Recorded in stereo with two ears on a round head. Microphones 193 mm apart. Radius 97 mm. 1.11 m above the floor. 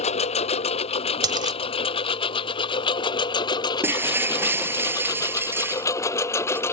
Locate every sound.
0.0 s a lawn mower: 30° left (ahead or behind); by 6.7 s 10° left (ahead or behind)
1.2 s a dropped coin: 20° right (ahead or behind)
3.8 s breaking glass: 10° right (ahead or behind)